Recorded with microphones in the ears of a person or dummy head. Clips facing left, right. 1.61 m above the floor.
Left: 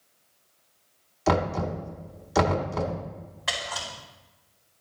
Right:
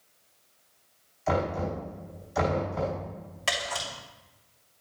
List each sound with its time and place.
1.3 s knocking: 70° left (ahead or behind), 1.5 m
3.5 s a camera shutter: 40° right (ahead or behind), 2.5 m